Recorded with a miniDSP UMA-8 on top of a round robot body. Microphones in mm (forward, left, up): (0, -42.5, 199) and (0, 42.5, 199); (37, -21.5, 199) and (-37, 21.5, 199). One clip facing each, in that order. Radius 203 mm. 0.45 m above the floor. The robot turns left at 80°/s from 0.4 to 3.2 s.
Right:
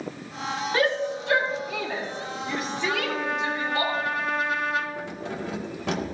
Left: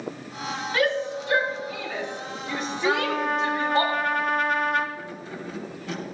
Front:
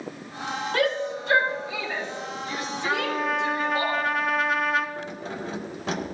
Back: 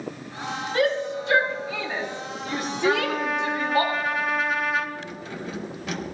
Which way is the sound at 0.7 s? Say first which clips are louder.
Even, back 2 dB; 30° right.